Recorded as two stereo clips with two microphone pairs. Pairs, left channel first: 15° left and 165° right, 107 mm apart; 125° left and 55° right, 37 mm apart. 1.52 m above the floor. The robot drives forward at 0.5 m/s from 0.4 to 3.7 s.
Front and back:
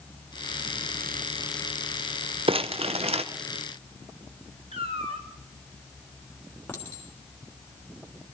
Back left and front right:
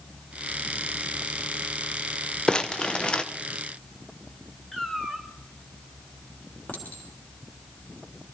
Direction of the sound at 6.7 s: 90° left.